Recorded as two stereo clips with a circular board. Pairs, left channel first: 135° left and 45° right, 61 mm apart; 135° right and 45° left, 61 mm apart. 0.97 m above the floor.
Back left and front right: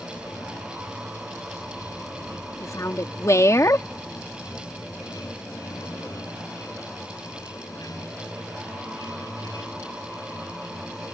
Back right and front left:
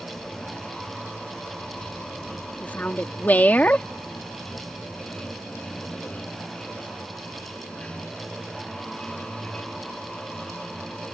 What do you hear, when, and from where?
0.0 s running water: 150° left
2.6 s a woman speaking: 165° left